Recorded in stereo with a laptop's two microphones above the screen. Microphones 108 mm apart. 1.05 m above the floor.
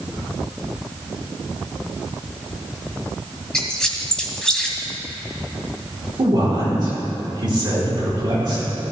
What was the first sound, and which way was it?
A squeak, 5° left (ahead or behind).